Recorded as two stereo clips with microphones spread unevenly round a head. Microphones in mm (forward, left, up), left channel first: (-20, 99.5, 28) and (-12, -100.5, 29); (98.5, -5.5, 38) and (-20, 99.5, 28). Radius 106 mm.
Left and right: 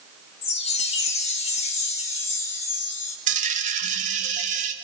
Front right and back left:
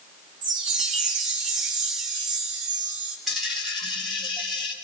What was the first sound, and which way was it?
A chime, 155° left.